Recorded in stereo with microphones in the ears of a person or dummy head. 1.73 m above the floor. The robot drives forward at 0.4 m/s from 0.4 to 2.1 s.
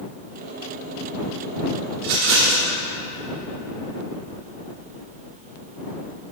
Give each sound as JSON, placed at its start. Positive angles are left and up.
{"t": 2.0, "sound": "a rattle", "side_deg": -50, "distance_m": 1.1}